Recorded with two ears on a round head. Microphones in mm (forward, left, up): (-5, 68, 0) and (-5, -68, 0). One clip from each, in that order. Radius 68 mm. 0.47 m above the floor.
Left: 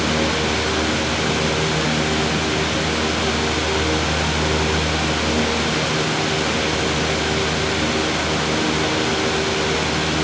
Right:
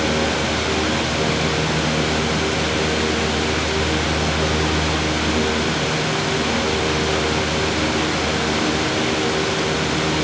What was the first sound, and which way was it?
Only background noise.